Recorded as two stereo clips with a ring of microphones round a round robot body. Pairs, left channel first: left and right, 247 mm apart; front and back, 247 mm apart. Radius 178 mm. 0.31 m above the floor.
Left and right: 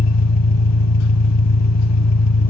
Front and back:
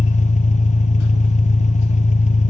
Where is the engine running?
65° left, 0.8 m.